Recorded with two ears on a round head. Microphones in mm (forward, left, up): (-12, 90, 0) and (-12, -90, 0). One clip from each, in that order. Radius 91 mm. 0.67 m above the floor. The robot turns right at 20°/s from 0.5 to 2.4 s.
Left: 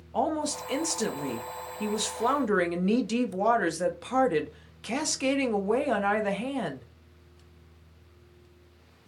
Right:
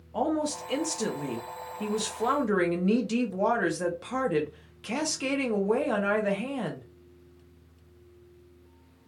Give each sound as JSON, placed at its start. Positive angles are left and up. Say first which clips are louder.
{"t": 0.1, "sound": "a woman speaking", "louder": "even", "side_deg": 20, "distance_m": 0.5}